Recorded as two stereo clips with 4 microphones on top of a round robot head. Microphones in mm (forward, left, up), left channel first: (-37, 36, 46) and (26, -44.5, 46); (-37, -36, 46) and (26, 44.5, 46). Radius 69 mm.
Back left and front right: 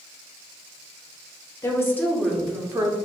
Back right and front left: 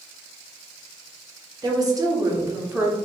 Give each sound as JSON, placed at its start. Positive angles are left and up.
{"t": 1.6, "sound": "a woman speaking", "azimuth_deg": 80, "distance_m": 1.4}